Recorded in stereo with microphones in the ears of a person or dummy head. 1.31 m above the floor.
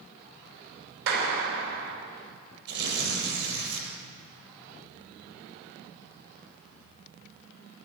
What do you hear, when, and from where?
1.1 s a clap: 60° right (ahead or behind), 4.5 m
2.7 s tearing paper: 65° right (ahead or behind), 7 m